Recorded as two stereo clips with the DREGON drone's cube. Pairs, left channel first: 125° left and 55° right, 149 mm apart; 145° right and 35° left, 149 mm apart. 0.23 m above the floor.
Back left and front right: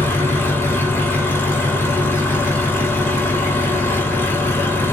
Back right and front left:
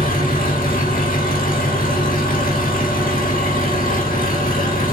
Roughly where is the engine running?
Behind.